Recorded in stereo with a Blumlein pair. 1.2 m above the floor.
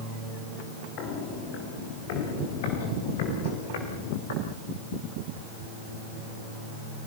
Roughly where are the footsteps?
Ahead left.